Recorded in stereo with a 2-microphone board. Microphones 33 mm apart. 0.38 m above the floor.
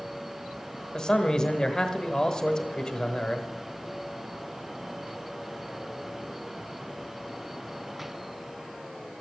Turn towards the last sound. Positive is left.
turn(degrees=20)  # may be behind; listen again after turning